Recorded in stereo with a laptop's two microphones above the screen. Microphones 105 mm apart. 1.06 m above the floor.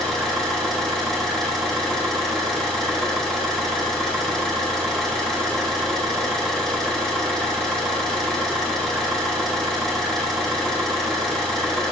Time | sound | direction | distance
0.0 | an engine running | 5° left (ahead or behind) | 1.6 m